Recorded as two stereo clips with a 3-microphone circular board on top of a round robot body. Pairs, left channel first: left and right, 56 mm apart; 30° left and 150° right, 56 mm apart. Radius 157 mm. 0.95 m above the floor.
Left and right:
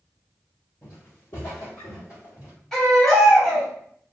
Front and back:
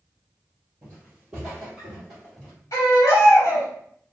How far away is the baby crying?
About 2.0 m.